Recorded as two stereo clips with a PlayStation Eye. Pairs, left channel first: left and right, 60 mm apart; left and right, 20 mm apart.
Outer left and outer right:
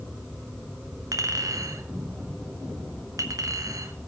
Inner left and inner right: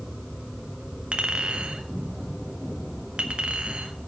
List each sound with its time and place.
1.1 s a clink: 85° right, 1.0 m